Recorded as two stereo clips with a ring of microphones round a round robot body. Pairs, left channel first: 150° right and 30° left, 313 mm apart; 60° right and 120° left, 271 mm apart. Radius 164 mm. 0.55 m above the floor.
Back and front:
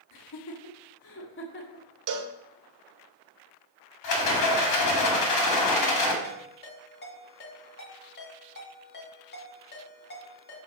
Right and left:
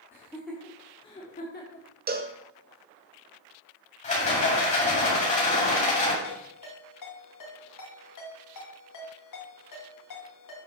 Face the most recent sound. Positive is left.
turn(degrees=-90)